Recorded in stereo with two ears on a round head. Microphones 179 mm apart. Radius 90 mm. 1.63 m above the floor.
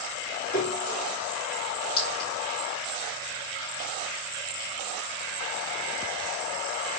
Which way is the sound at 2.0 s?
70° left (ahead or behind).